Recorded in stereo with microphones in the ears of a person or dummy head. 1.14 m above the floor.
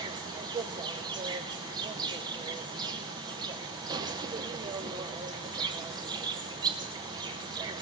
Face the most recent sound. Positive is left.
turn(degrees=-20)  # may be behind; listen again after turning